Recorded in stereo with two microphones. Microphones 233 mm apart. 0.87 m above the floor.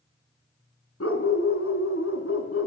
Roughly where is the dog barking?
Left.